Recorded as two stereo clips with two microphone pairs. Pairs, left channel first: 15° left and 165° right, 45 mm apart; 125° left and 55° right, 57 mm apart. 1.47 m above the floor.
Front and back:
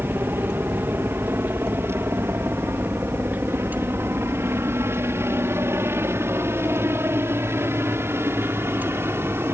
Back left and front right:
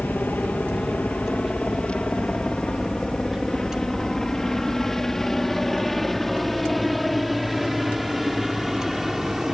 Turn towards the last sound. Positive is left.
turn(degrees=-140)